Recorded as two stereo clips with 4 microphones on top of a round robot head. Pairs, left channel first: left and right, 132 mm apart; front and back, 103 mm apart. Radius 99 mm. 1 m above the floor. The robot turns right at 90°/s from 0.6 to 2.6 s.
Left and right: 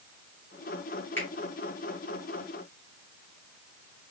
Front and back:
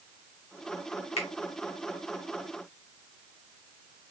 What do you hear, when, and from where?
1.2 s a finger snap: 10° left, 1.6 m; by 1.3 s 20° left, 1.6 m